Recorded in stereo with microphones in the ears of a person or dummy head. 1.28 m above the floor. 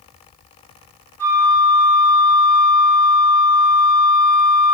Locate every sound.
1.2 s a flute: 10° left (ahead or behind), 2.5 m